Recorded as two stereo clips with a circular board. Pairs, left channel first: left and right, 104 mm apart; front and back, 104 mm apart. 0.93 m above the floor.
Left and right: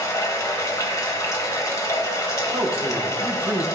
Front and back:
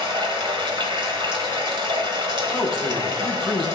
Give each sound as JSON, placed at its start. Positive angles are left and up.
{"t": 0.0, "sound": "running water", "azimuth_deg": 145, "distance_m": 1.2}
{"t": 2.5, "sound": "a man speaking", "azimuth_deg": -90, "distance_m": 1.2}